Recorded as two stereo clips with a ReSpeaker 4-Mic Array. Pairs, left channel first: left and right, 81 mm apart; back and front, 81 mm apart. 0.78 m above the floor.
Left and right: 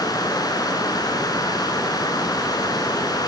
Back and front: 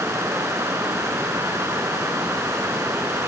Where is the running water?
55° left, 5 m.